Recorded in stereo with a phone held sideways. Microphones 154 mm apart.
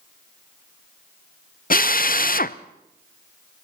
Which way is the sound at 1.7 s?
60° left (ahead or behind).